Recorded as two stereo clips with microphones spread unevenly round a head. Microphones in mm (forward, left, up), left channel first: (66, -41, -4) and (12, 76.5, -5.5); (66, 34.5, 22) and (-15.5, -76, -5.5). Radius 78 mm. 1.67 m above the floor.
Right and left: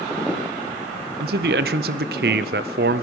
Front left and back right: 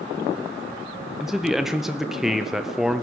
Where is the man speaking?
145° left, 0.6 m.